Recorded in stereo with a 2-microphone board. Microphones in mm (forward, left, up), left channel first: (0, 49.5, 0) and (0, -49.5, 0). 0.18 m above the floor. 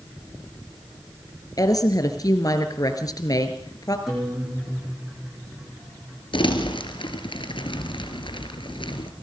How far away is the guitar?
About 8.5 m.